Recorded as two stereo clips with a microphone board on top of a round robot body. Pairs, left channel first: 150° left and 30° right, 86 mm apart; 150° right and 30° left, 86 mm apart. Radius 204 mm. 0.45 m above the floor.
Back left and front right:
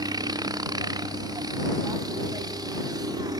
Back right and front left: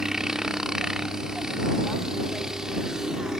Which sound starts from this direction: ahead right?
A helicopter, at 0.0 s.